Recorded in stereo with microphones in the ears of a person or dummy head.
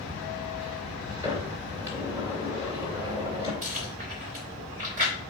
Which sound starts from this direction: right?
Chewing, at 3.6 s.